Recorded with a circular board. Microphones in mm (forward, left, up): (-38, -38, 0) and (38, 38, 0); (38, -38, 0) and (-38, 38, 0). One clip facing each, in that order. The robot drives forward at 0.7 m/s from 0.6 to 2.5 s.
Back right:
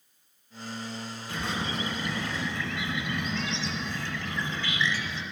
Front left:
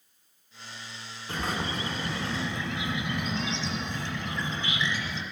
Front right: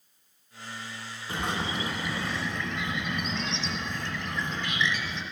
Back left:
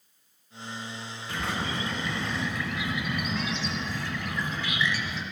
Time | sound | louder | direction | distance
1.3 | a bird | front left 1 dB, front right 1 dB | 15° left | 1.2 m